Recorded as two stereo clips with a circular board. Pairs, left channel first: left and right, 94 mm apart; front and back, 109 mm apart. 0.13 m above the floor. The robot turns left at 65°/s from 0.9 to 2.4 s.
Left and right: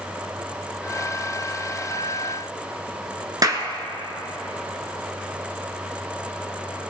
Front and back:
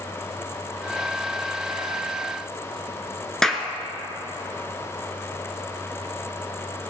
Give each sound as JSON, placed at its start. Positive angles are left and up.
{"t": 3.4, "sound": "a clap", "azimuth_deg": -80, "distance_m": 1.3}